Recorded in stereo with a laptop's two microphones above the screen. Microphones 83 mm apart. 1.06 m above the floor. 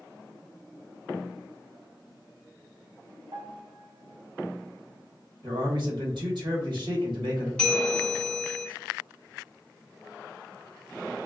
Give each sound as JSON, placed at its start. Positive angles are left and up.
{"t": 3.3, "sound": "a piano", "side_deg": -60, "distance_m": 0.5}
{"t": 5.4, "sound": "a man speaking", "side_deg": -60, "distance_m": 1.1}
{"t": 7.6, "sound": "a bell", "side_deg": 10, "distance_m": 1.6}